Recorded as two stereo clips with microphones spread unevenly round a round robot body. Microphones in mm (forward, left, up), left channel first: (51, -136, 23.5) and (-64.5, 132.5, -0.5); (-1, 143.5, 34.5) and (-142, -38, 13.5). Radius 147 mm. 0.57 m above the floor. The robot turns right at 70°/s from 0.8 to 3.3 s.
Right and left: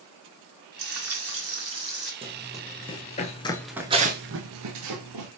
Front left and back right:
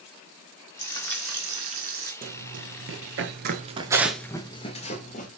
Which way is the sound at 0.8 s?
115° left.